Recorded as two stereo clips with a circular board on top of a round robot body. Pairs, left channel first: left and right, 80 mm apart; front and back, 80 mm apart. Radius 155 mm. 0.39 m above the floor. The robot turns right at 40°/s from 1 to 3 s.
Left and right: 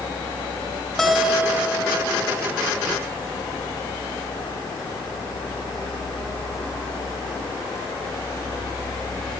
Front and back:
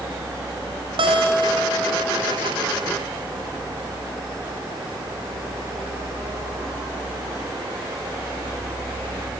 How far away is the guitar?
About 5 m.